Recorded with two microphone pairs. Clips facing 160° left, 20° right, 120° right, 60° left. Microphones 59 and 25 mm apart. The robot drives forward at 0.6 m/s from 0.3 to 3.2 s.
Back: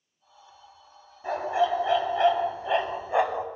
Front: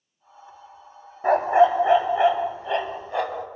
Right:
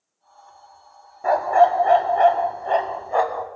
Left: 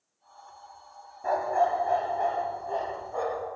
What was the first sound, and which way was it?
A dog barking, 65° right.